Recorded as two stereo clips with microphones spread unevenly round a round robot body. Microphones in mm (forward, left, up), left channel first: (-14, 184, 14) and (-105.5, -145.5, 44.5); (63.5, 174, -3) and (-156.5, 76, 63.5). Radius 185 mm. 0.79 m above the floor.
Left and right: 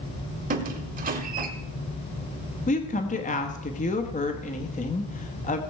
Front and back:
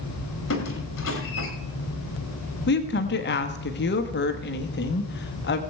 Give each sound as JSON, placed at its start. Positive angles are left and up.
{"t": 0.5, "sound": "a squeak", "azimuth_deg": -40, "distance_m": 1.0}
{"t": 2.7, "sound": "a woman speaking", "azimuth_deg": 10, "distance_m": 1.0}